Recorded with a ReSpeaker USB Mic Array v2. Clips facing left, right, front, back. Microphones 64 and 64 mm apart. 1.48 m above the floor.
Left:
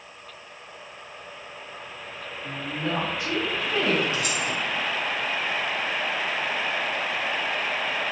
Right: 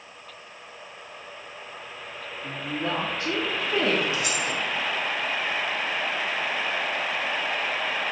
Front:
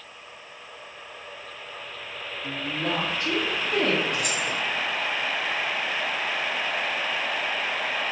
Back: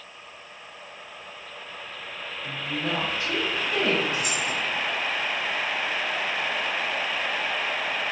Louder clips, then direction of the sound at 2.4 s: Even, front 1 dB; 45° right.